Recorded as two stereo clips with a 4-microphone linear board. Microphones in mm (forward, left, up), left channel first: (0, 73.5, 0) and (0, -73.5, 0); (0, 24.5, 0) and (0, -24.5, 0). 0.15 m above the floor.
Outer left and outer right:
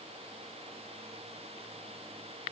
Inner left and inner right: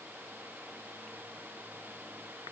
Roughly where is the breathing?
No breathing in this recording.